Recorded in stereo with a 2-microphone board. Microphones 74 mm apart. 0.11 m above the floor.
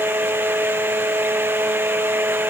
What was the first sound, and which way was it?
Only background noise.